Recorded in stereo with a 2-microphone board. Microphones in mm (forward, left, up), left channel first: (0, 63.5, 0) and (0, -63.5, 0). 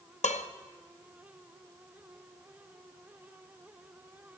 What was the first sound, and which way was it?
Dishes clattering, 65° left (ahead or behind).